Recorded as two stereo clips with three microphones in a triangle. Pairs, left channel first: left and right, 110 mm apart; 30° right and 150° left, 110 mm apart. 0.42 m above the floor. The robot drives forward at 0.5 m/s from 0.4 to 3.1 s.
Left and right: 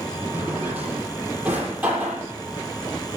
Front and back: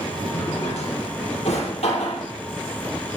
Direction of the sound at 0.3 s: 15° right.